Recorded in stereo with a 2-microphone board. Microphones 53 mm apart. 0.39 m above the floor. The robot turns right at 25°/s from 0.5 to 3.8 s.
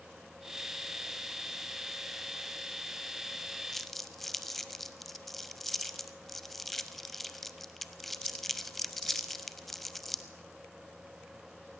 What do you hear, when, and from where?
3.7 s crumpling: 5° left (ahead or behind), 0.6 m